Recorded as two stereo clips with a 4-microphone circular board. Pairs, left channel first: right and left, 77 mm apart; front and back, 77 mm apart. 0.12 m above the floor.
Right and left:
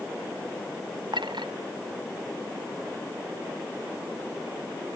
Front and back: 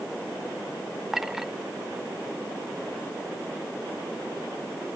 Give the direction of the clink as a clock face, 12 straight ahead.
9 o'clock.